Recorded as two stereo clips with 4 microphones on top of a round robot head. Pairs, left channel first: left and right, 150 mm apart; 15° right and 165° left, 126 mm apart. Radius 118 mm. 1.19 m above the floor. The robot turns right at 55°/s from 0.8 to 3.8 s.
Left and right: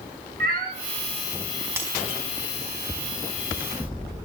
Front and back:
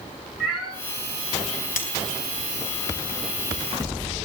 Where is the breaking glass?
15° right, 4.5 m; by 2.0 s 5° right, 4.5 m.